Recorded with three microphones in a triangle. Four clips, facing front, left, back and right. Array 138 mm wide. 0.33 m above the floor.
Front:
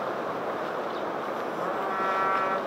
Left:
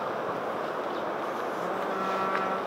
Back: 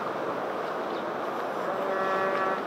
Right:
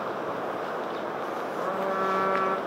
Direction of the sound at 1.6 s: 55° right.